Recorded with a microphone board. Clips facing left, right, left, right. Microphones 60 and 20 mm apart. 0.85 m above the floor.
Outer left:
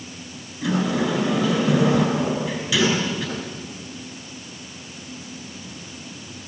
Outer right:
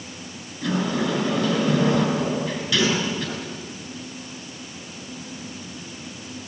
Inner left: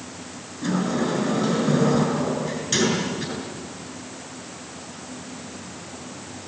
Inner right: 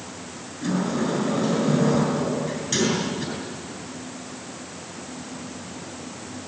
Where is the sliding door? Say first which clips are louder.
Outer left 2 dB, inner left 1 dB; 10° left (ahead or behind), 6.5 m.